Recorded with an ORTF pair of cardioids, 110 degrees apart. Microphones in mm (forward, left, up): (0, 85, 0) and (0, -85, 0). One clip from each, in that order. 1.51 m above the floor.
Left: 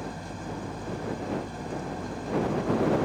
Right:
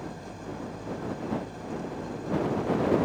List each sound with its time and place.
0.0 s an engine running: 30° left